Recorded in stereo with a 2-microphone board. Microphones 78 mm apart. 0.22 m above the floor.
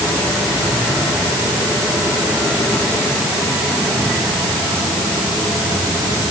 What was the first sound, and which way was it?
Only background noise.